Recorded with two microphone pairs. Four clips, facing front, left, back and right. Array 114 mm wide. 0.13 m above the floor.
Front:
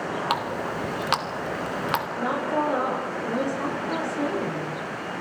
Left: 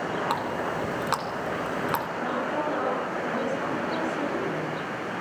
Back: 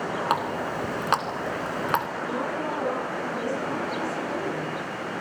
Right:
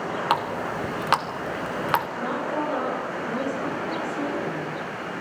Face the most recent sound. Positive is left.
turn(degrees=-10)